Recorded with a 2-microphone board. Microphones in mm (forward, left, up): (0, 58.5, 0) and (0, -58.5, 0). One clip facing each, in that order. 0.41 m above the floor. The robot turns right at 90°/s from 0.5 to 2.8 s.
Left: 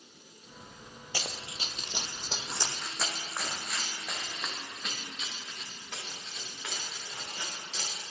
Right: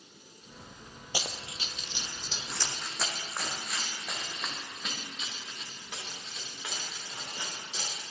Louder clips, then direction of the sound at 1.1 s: Right 1 dB; 15° right (ahead or behind).